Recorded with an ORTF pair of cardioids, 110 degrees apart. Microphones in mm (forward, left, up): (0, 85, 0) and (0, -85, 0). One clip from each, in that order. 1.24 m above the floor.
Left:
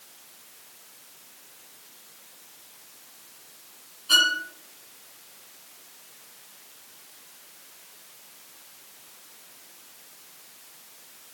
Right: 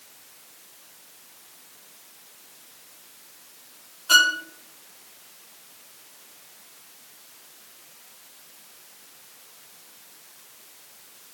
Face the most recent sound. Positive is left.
turn(degrees=-45)